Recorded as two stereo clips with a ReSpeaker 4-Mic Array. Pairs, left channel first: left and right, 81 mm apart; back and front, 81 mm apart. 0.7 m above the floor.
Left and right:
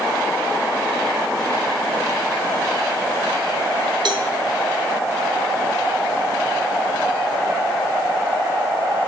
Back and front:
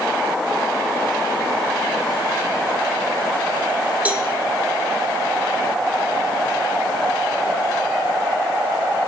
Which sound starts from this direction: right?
A cowbell, at 4.0 s.